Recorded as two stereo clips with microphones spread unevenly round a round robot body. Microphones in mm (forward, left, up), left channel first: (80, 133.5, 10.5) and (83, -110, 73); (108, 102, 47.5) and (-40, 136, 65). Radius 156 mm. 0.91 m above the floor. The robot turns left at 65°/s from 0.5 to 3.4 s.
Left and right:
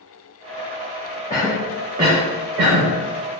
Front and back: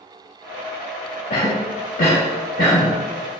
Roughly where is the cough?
Ahead.